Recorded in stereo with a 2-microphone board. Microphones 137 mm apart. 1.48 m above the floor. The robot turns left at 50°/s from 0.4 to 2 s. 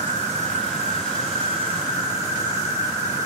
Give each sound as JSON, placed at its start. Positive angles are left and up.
{"t": 0.0, "sound": "an insect", "azimuth_deg": -70, "distance_m": 5.5}